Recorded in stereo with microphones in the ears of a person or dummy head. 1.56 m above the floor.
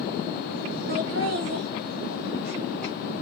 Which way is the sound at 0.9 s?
60° right (ahead or behind).